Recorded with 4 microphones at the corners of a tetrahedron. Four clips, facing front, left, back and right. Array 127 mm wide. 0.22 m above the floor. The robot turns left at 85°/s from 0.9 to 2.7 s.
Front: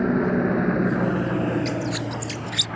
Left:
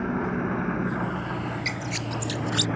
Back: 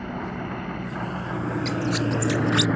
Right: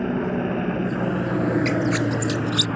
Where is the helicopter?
15° right; by 2.8 s 170° right.